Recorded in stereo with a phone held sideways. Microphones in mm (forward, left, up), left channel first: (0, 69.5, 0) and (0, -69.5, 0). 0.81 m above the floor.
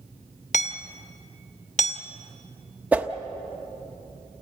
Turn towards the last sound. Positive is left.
turn(degrees=-10)  # may be behind; listen again after turning